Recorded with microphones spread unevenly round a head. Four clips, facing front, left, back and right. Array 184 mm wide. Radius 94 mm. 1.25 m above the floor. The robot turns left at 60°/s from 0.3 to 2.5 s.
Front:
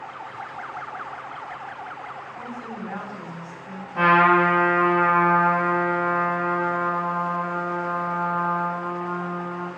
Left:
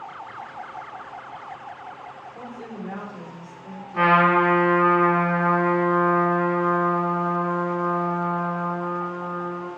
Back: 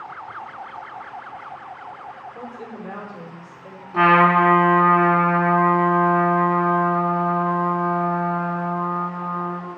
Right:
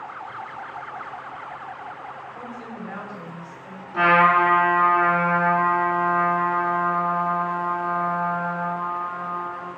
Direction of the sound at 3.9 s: 175° right.